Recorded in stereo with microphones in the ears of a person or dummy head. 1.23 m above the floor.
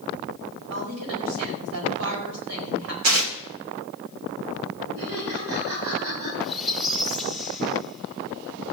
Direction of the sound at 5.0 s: 85° right.